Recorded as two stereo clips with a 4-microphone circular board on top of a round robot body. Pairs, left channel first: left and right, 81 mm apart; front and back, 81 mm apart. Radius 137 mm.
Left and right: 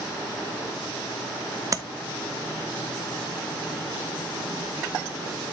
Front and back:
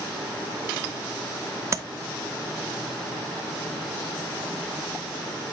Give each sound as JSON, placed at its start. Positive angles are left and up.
{"t": 1.7, "sound": "tapping", "azimuth_deg": -130, "distance_m": 0.8}